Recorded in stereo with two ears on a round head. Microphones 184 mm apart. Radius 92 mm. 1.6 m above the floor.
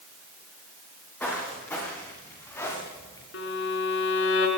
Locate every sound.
1.2 s footsteps: 10° left (ahead or behind), 7 m; by 3.2 s 15° left (ahead or behind), 10 m
3.3 s a violin: 60° left (ahead or behind), 4 m